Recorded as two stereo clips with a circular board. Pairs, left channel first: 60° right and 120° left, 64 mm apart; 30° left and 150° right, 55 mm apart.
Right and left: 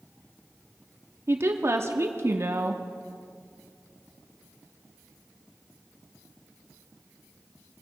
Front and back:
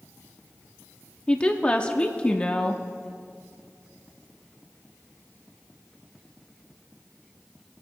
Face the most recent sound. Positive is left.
turn(degrees=95)